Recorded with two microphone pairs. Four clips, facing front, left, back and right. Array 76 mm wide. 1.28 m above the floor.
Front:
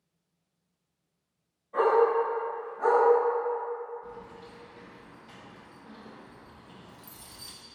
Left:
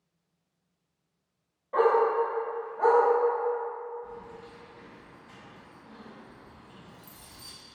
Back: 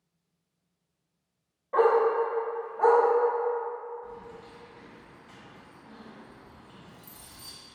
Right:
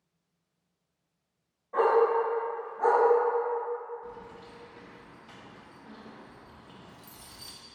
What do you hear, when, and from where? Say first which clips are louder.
1.7 s a dog barking: even, back 1 dB; 160° left, 1.6 m
4.0 s keys jangling: left 1 dB, back 1 dB; 75° right, 0.9 m